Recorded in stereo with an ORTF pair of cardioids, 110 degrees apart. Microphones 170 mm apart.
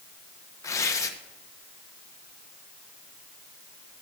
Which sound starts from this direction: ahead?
Tearing paper, at 0.6 s.